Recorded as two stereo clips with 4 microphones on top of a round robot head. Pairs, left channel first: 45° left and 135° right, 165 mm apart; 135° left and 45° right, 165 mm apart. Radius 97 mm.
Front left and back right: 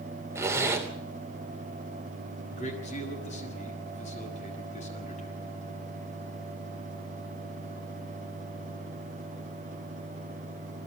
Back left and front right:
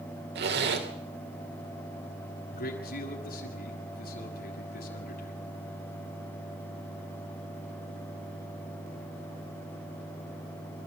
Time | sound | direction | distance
0.3 | a zipper | 60° right | 3 m
2.5 | a man speaking | 95° left | 6.5 m